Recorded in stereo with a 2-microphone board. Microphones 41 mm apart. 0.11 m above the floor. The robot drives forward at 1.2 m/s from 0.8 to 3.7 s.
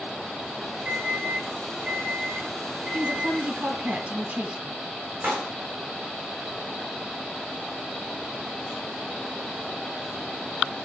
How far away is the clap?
About 7 m.